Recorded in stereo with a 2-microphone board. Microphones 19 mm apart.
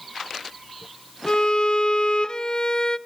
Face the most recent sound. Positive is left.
turn(degrees=50)  # may be behind; listen again after turning